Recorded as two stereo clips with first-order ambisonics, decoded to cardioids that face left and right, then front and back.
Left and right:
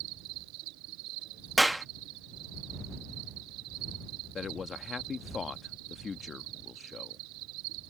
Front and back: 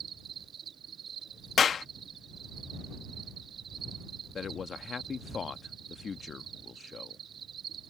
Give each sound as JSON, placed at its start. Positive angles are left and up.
{"t": 0.0, "sound": "an insect", "azimuth_deg": -115}
{"t": 1.6, "sound": "a clap", "azimuth_deg": -10}
{"t": 4.3, "sound": "a man speaking", "azimuth_deg": 45}